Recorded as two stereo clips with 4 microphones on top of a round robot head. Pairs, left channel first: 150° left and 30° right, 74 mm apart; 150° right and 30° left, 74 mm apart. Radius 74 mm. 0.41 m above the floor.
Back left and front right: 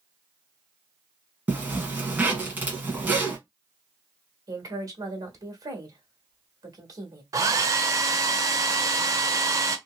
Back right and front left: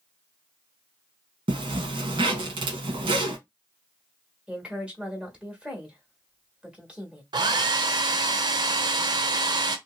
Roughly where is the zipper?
Ahead left.